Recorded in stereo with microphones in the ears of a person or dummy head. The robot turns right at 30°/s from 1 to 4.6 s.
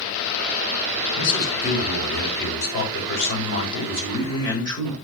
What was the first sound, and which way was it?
A man speaking, 60° left.